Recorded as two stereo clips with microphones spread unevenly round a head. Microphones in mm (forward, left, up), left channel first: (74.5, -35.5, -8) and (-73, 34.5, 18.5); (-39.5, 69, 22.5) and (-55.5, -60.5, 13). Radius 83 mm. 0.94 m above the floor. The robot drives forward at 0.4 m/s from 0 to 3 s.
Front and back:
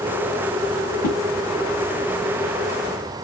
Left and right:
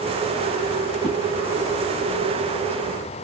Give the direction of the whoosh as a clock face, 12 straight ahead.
12 o'clock.